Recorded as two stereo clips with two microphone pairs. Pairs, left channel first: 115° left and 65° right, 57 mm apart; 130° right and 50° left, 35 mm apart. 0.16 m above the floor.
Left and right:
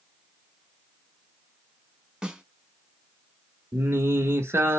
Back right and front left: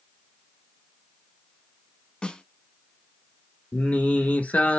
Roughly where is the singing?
Right.